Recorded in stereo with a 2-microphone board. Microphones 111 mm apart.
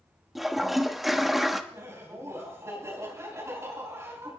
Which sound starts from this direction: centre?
A toilet flushing, at 0.3 s.